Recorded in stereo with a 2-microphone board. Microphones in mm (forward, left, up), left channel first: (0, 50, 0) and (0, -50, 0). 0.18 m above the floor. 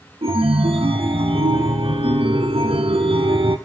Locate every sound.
0.2 s a chime: 75° right (ahead or behind), 1.6 m